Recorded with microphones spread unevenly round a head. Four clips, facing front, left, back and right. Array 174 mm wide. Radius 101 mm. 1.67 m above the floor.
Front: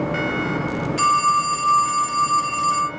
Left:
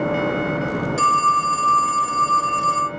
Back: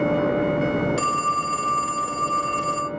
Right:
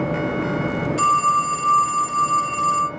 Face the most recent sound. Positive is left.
turn(degrees=-170)